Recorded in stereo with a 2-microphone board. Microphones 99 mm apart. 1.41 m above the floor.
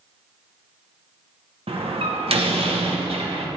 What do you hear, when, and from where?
1.7 s a door slam: 70° right (ahead or behind), 1.0 m